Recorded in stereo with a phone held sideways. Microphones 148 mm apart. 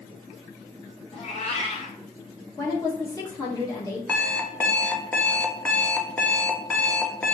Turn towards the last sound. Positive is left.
turn(degrees=10)  # may be behind; listen again after turning